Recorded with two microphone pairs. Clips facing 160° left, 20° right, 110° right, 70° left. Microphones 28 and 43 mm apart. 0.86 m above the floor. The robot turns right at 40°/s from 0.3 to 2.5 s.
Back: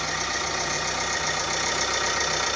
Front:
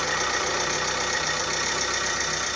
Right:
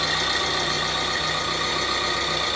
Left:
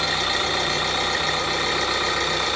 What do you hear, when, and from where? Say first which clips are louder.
0.0 s an engine running: front 2 dB, left 1 dB; 10° left, 1.5 m; by 2.6 s 95° left, 1.5 m